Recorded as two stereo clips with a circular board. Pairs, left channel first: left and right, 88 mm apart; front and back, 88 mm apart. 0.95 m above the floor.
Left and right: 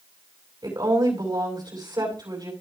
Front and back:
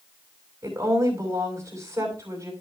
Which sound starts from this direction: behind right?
A woman speaking, at 0.6 s.